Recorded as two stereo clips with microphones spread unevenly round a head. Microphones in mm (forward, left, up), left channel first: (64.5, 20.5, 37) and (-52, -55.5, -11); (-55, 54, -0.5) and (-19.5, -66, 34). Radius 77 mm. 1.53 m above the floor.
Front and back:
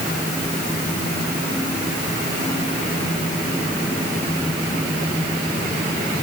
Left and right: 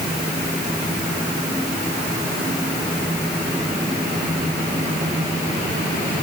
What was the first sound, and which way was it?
Only background noise.